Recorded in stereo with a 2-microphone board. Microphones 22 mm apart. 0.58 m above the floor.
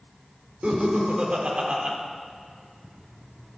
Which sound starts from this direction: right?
Laughter, at 0.6 s.